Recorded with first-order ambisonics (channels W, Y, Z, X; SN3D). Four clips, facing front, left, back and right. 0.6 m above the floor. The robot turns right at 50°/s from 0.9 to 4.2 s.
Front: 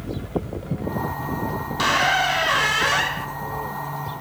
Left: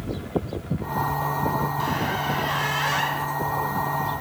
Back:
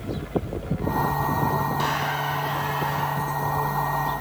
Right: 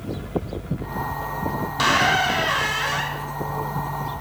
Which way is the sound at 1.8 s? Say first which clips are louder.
Right 7 dB, front 6 dB; 60° right.